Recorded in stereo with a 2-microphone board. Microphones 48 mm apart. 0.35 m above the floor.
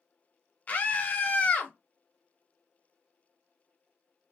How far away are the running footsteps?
No running footsteps in this recording.